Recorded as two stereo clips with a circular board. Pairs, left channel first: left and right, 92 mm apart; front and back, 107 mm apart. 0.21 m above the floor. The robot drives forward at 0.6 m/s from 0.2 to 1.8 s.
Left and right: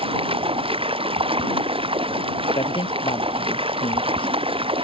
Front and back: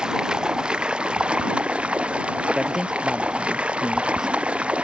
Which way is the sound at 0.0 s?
95° right.